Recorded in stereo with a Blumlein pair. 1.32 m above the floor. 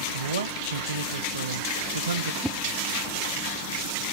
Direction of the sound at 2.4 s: 5° right.